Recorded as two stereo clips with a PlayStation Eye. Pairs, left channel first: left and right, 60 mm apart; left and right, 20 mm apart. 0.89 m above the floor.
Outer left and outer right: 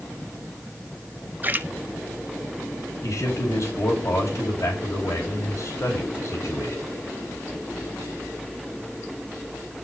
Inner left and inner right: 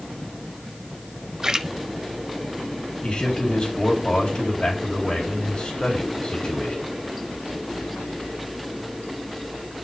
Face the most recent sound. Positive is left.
turn(degrees=50)  # may be behind; listen again after turning